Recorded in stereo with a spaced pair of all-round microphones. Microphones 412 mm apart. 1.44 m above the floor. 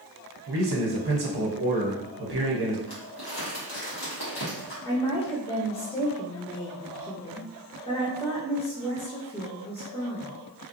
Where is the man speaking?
65° right (ahead or behind), 0.7 m.